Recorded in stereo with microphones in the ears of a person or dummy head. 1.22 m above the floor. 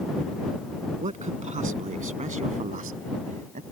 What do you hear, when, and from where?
1.0 s a man speaking: 30° right (ahead or behind); by 3.6 s 40° right (ahead or behind)